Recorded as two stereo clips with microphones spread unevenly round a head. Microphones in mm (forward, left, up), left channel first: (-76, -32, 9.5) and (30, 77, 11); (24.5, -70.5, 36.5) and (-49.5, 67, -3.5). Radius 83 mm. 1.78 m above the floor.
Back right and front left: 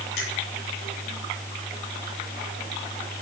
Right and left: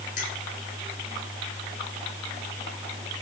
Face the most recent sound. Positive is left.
turn(degrees=-105)